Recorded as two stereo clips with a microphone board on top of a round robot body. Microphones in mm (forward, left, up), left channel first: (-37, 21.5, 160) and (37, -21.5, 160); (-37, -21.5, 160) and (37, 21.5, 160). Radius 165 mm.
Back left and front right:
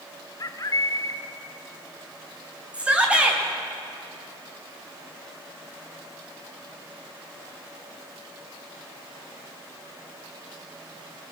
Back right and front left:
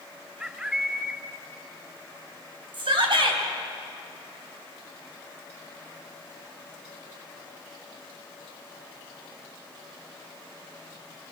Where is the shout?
50° left, 3.5 m.